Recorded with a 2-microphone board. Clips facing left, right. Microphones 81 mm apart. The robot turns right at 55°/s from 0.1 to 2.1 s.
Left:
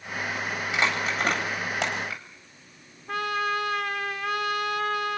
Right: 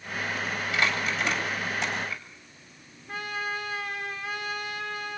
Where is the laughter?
No laughter in this recording.